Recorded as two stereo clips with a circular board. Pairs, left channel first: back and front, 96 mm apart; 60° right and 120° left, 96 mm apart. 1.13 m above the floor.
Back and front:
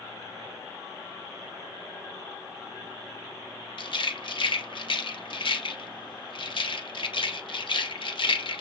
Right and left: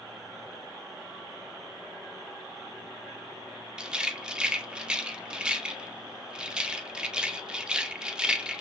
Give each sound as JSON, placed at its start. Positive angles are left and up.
{"t": 3.8, "sound": "a rattle", "azimuth_deg": -160, "distance_m": 0.5}